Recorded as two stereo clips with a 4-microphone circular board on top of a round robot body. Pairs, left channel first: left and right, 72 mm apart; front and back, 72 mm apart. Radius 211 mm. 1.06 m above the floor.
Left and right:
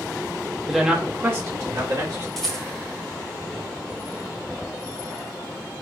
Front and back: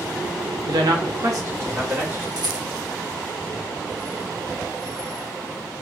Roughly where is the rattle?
Behind.